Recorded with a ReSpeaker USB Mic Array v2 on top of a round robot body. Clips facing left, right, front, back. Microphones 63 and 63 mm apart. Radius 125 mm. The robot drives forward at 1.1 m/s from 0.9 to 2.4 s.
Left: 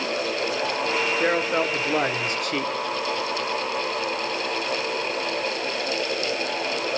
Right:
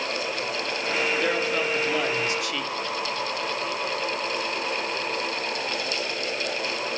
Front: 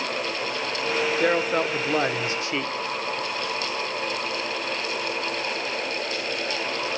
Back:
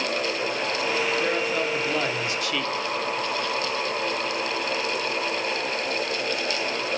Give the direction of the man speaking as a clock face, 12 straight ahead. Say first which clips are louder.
Left 3 dB, front 3 dB; 11 o'clock.